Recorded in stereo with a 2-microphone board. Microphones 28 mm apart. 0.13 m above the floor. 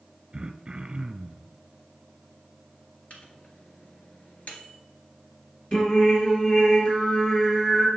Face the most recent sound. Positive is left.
turn(degrees=45)  # may be behind; listen again after turning